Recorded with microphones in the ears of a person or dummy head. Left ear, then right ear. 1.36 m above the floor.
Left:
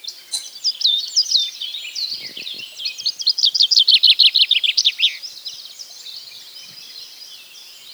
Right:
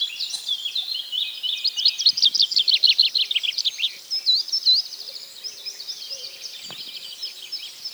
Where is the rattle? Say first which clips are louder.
Left 3 dB; 20° left (ahead or behind), 1.2 m.